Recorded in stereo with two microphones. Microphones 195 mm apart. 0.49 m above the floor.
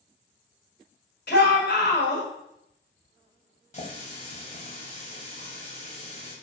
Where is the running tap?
35° left (ahead or behind), 1.7 m.